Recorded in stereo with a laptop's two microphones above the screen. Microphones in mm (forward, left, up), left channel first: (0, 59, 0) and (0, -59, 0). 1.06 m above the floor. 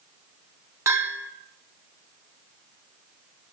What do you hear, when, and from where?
0.9 s a bell: 25° right (ahead or behind), 1.2 m